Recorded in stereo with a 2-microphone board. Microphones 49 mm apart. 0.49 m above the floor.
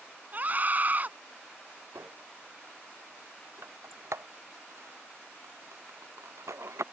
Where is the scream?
40° right (ahead or behind).